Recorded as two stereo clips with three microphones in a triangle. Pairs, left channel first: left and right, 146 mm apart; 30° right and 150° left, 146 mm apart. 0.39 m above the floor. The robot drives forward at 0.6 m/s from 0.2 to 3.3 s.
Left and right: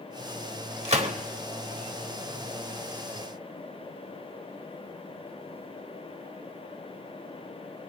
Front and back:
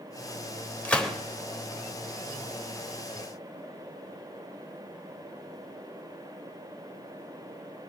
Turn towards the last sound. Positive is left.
turn(degrees=-155)